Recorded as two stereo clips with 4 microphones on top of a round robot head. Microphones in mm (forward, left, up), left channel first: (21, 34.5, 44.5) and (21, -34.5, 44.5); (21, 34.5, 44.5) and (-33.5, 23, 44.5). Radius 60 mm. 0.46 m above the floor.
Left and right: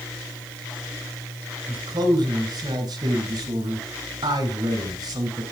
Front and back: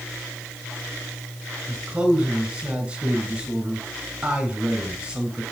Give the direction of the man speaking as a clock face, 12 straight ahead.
3 o'clock.